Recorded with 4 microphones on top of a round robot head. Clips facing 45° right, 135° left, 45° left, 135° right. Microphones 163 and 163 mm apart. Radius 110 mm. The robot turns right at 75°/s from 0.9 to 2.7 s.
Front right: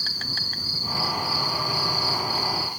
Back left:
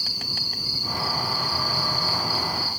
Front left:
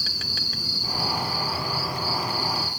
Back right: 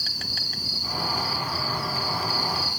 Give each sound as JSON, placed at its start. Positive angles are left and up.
{"t": 0.0, "sound": "an insect", "azimuth_deg": 60}